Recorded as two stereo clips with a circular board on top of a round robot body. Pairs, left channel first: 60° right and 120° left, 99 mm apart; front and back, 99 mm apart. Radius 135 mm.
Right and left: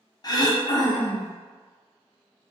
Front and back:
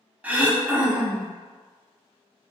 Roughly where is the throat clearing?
Right.